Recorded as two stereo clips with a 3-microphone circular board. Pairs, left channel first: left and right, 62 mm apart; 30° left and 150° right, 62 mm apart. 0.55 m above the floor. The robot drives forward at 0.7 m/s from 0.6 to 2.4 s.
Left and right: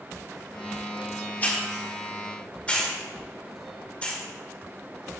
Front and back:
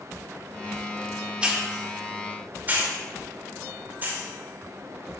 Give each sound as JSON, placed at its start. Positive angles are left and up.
{"t": 1.4, "sound": "a hiss", "azimuth_deg": 145, "distance_m": 1.6}